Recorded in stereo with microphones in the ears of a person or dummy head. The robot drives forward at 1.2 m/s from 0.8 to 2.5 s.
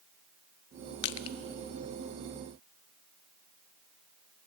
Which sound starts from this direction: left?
Crushing, at 1.0 s.